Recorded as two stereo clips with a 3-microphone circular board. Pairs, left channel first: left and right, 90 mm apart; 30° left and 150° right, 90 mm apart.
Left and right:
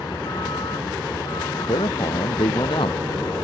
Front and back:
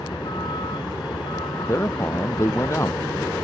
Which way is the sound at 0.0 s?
55° left.